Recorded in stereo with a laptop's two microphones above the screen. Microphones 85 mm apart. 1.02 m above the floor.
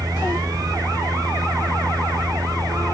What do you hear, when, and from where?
0.0 s a fan: 45° right (ahead or behind)